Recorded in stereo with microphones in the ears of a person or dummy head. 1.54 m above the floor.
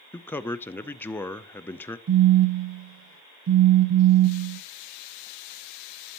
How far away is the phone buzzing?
About 0.6 m.